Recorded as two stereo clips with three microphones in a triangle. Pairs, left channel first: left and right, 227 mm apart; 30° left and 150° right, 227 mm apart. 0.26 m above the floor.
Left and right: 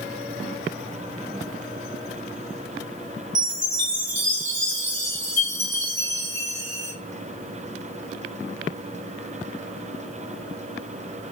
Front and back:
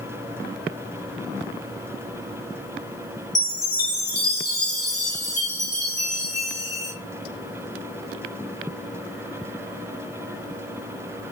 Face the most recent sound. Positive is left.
turn(degrees=-75)